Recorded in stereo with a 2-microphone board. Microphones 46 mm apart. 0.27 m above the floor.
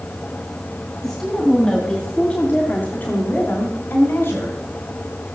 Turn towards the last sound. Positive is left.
turn(degrees=55)  # may be behind; listen again after turning